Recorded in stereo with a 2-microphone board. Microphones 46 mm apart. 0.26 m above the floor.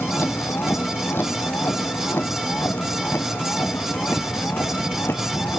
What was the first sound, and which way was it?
A vehicle, 55° left (ahead or behind).